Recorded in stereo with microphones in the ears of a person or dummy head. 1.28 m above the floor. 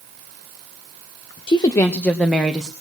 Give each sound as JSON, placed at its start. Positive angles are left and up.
{"t": 1.5, "sound": "a woman speaking", "side_deg": 30, "distance_m": 0.8}